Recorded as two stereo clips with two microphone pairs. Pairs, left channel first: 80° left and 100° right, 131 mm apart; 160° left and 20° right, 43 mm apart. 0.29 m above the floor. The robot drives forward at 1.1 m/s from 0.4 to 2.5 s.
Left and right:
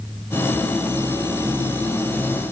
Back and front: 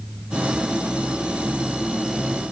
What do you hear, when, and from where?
Only background noise.